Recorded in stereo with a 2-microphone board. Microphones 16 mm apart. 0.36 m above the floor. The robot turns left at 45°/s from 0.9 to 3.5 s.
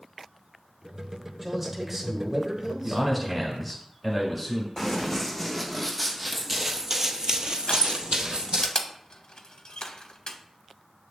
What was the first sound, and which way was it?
A man speaking, 15° right.